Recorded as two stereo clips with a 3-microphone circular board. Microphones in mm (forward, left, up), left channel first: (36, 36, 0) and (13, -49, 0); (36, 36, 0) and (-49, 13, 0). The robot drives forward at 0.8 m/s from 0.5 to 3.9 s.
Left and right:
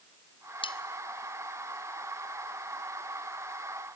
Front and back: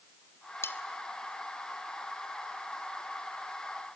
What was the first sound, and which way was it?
Cutlery clinking, 75° left.